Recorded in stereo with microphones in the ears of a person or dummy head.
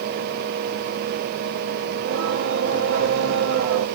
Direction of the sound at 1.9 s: 65° right (ahead or behind).